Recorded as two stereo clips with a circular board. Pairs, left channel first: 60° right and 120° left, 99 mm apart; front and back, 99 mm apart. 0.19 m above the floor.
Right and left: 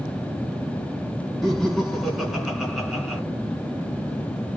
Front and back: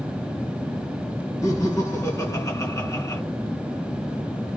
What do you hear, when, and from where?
1.4 s laughter: 35° left, 2 m